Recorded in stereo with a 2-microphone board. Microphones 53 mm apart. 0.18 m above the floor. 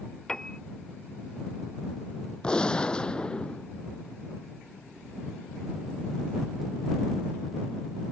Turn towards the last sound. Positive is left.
turn(degrees=20)  # may be behind; listen again after turning